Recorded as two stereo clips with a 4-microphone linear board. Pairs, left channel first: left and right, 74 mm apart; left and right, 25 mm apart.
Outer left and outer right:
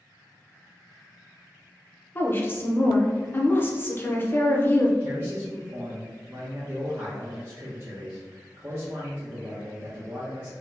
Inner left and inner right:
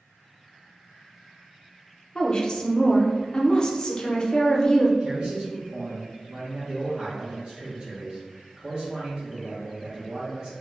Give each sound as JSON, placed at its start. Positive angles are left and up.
{"t": 2.1, "sound": "a woman speaking", "side_deg": 30, "distance_m": 0.5}
{"t": 5.0, "sound": "a man speaking", "side_deg": -35, "distance_m": 0.6}